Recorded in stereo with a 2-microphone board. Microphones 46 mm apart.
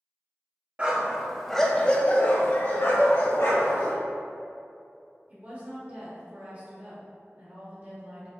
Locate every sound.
0.8 s a dog barking: 25° right (ahead or behind), 0.8 m; by 3.9 s 75° left (ahead or behind), 1.6 m
3.0 s dishes clattering: 60° right (ahead or behind), 2.0 m
5.3 s a woman speaking: 40° right (ahead or behind), 1.6 m